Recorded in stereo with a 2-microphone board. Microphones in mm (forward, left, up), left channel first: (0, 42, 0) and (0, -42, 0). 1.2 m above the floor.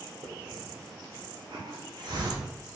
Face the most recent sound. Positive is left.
turn(degrees=-55)  # may be behind; listen again after turning